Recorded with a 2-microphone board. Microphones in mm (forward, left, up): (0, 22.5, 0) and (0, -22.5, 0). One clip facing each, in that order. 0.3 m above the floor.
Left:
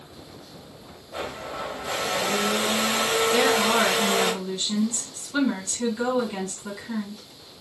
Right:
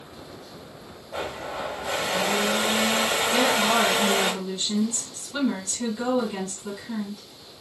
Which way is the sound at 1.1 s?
10° right (ahead or behind).